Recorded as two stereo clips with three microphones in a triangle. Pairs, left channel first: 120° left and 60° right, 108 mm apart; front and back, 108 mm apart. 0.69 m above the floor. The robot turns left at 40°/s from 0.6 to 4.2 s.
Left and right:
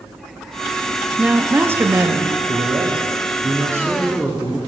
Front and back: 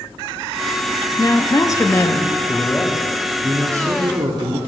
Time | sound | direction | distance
1.2 | a woman speaking | 5° left | 0.6 m
2.5 | a man speaking | 70° right | 1.2 m